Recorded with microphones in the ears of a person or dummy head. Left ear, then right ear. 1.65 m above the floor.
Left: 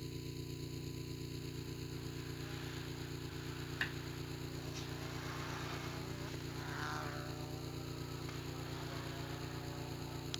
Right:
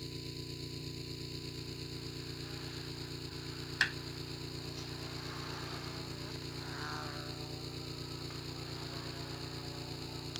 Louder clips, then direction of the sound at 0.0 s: Right 3 dB; 25° right (ahead or behind).